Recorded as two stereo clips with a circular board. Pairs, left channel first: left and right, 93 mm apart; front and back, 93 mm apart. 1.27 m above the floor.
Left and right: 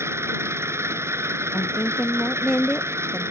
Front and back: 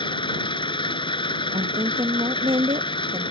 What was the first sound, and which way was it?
An engine running, 30° right.